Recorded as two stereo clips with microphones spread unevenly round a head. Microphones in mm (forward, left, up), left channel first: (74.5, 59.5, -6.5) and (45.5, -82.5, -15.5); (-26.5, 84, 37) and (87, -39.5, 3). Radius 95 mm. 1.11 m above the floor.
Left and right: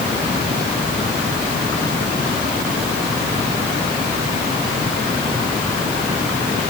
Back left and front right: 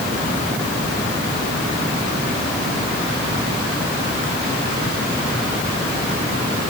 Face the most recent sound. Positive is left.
No sound to turn to.